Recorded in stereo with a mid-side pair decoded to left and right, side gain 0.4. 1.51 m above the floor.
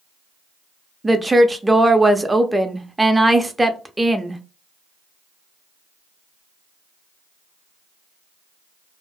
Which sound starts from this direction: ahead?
A woman speaking, at 1.0 s.